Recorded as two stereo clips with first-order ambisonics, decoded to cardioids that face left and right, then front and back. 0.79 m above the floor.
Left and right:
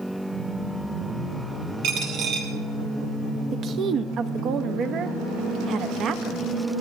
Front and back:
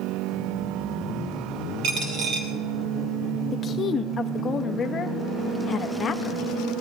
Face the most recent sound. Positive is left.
turn(degrees=-60)